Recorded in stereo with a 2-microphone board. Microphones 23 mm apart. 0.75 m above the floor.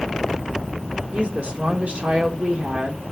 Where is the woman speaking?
65° right (ahead or behind), 1.9 m.